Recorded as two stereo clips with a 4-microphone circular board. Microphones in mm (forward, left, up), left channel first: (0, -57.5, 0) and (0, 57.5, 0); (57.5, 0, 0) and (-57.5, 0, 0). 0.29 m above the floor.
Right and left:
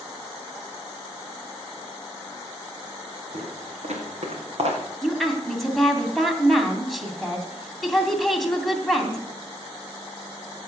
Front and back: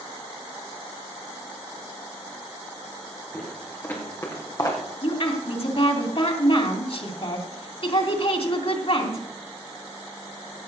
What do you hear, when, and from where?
3.3 s footsteps: 75° left, 5.5 m; by 4.8 s 55° left, 4.5 m
5.0 s a woman speaking: straight ahead, 2.5 m